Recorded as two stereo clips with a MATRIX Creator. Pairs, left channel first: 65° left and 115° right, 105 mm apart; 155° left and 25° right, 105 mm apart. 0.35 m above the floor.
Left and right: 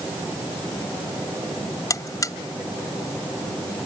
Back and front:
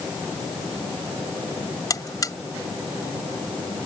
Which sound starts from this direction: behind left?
A buzzer, at 1.9 s.